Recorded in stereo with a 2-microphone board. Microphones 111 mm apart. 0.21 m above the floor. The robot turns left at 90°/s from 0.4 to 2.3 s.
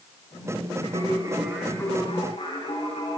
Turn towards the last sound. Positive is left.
turn(degrees=120)